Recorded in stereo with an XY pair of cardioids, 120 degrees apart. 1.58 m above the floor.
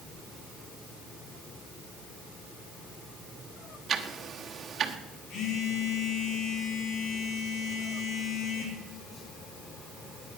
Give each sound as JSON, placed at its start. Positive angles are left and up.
{"t": 3.9, "sound": "ticking", "azimuth_deg": -40, "distance_m": 1.7}
{"t": 5.3, "sound": "a phone buzzing", "azimuth_deg": 60, "distance_m": 4.0}